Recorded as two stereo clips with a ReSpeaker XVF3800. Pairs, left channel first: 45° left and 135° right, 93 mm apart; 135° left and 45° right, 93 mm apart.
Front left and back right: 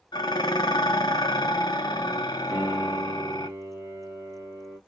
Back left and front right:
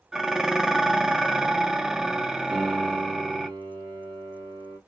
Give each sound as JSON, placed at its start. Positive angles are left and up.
{"t": 0.1, "sound": "dishes clattering", "azimuth_deg": 40, "distance_m": 0.5}
{"t": 2.5, "sound": "a piano", "azimuth_deg": -65, "distance_m": 1.7}